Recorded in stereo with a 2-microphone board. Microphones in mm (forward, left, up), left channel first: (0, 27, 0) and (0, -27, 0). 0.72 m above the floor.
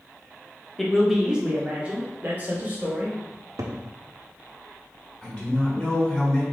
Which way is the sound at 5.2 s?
10° left (ahead or behind).